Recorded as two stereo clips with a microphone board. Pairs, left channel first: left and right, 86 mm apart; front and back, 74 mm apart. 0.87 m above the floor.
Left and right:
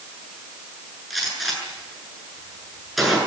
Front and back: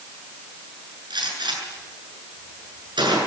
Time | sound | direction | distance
1.1 | a gunshot | straight behind | 8 m